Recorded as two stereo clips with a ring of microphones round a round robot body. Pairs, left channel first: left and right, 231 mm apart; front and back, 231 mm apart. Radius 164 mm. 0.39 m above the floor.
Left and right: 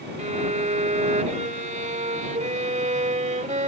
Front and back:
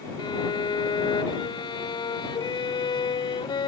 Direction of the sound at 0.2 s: 60° right.